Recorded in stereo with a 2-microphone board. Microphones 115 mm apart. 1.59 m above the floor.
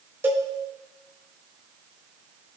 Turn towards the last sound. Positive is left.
turn(degrees=-20)  # may be behind; listen again after turning